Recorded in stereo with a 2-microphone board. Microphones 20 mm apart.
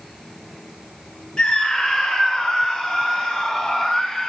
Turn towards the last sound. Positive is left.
turn(degrees=40)  # may be behind; listen again after turning